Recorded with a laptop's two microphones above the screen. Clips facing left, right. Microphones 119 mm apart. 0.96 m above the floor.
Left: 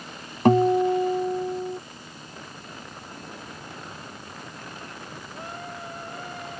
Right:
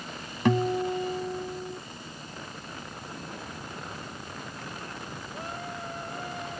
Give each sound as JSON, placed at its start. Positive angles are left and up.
{"t": 0.5, "sound": "a guitar", "side_deg": 45}